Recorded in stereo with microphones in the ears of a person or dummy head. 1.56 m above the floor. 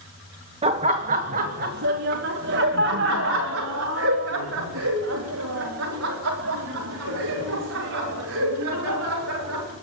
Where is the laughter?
30° right (ahead or behind), 1.4 m; by 9.7 s 80° right, 7 m.